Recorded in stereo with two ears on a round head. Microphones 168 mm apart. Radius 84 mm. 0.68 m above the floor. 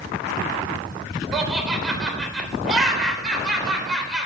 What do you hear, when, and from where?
1.3 s laughter: centre (ahead or behind), 3 m